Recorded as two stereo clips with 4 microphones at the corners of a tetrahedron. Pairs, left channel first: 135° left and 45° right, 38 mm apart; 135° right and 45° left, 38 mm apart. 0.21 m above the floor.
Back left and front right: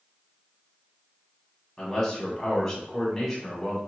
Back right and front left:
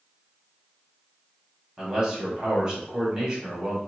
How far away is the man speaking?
About 1.4 m.